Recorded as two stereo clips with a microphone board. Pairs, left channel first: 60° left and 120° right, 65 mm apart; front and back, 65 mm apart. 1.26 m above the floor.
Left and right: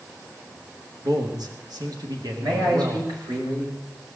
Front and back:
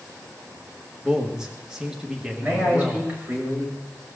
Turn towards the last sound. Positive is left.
turn(degrees=-115)